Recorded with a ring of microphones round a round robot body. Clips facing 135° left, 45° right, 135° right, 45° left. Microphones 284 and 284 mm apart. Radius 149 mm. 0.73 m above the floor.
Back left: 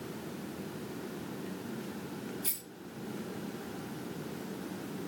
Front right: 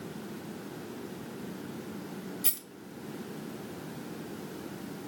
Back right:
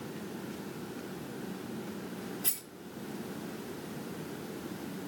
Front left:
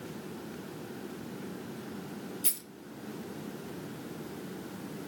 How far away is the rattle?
About 2.5 m.